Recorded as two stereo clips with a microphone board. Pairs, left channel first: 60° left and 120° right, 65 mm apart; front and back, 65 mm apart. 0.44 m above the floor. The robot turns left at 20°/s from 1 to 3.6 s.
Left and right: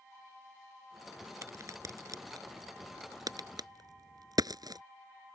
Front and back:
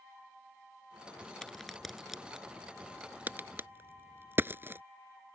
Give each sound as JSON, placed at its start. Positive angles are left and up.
{"t": 1.4, "sound": "a crack", "azimuth_deg": -80}